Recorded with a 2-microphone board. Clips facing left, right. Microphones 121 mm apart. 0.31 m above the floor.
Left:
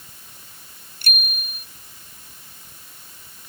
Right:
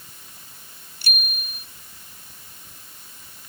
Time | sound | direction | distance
1.0 | a bicycle bell | 50° left (ahead or behind) | ?